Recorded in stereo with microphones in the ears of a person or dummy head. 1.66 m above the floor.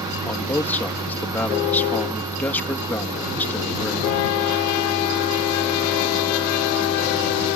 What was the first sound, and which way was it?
A man speaking, 10° left (ahead or behind).